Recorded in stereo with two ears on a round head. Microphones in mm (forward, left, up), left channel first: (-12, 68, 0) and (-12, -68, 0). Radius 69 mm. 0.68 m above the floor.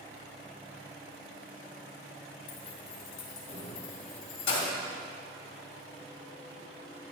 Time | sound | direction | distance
2.5 | keys jangling | 65° left (ahead or behind) | 2.0 m